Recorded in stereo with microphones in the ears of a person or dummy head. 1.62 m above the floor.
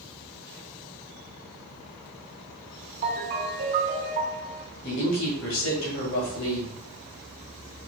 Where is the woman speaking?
75° left (ahead or behind), 2 m.